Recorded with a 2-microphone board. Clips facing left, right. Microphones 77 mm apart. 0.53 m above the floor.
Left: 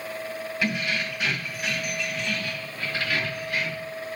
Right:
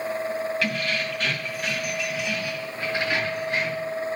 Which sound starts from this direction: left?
Keys jangling, at 0.6 s.